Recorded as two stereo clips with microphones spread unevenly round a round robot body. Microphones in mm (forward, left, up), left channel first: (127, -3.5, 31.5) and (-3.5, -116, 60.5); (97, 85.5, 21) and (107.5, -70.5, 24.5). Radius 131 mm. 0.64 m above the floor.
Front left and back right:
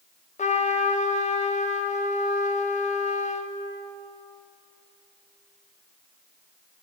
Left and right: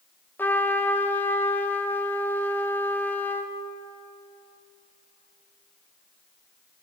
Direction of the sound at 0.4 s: 20° left.